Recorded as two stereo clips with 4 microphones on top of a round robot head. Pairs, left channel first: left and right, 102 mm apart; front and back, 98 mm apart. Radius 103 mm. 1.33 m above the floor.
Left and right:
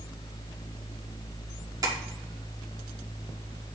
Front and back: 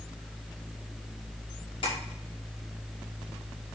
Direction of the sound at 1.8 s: 40° right.